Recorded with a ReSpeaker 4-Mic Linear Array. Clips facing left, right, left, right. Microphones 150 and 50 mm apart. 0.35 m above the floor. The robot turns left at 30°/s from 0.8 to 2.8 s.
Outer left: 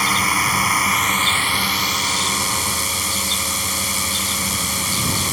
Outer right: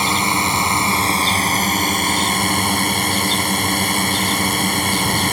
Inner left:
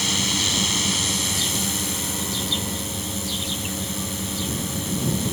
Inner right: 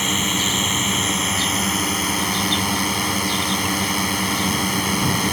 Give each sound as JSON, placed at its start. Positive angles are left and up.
{"t": 0.0, "sound": "a drone", "azimuth_deg": -30}